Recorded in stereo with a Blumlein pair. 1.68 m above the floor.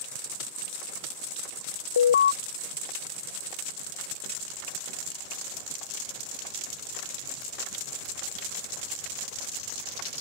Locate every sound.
2.0 s an alarm: 65° left